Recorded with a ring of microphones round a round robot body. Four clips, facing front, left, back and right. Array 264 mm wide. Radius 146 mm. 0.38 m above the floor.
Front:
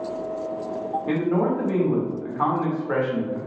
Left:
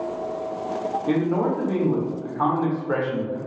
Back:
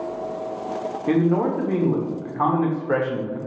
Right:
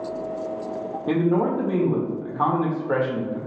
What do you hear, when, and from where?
1.1 s a man speaking: 155° right, 0.9 m